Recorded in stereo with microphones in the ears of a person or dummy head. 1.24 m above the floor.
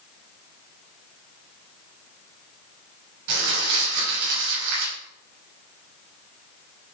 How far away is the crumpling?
About 6.5 m.